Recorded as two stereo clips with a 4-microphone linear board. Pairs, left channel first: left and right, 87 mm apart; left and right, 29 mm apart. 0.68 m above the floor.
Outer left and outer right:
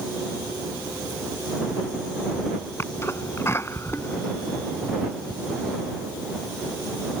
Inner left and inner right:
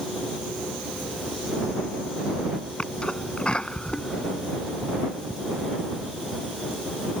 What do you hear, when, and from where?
2.8 s a sneeze: 30° left (ahead or behind)